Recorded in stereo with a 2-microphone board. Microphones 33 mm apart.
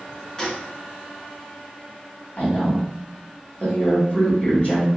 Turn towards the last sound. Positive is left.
turn(degrees=40)  # may be behind; listen again after turning